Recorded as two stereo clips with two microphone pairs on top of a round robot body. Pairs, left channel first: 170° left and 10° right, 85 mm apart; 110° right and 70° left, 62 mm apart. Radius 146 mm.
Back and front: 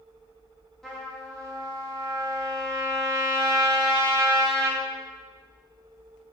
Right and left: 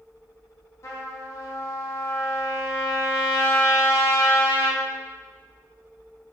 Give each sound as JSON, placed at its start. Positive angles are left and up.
{"t": 0.8, "sound": "a trumpet", "azimuth_deg": -105, "distance_m": 1.6}